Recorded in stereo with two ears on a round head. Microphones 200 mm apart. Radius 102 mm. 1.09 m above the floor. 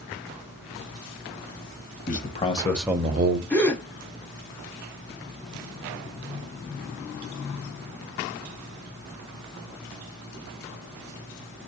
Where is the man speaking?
35° left (ahead or behind), 0.9 m; by 3.4 s 55° right (ahead or behind), 0.5 m.